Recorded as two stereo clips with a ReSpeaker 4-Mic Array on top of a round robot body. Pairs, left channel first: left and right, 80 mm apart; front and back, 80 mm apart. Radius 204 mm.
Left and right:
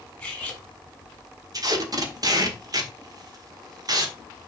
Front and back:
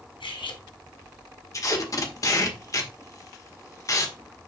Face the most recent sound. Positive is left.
turn(degrees=-50)